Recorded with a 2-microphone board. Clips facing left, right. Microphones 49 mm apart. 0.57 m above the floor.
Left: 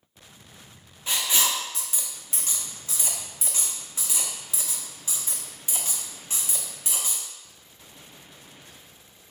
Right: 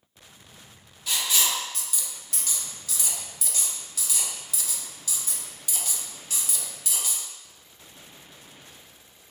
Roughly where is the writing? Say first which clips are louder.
Left 1 dB; left.